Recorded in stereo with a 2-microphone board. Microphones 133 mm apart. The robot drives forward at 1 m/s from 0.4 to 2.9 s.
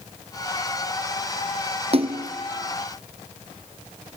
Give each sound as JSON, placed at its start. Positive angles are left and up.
{"t": 1.9, "sound": "a splash", "side_deg": -45, "distance_m": 1.1}